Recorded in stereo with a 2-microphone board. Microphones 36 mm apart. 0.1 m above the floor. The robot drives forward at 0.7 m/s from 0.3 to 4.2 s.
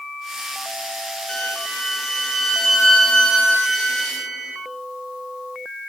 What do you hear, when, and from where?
1.3 s a violin: 10° left (ahead or behind), 0.8 m; by 4.6 s 5° left (ahead or behind), 2.5 m